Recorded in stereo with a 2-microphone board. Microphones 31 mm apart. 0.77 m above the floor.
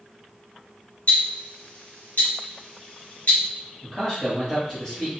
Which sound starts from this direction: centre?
A man speaking, at 3.8 s.